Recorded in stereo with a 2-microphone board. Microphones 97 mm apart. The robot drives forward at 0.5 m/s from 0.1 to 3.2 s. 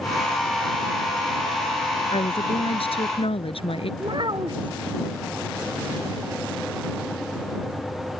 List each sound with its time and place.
2.1 s a woman speaking: 75° left (ahead or behind)
4.0 s a child speaking: 55° right (ahead or behind)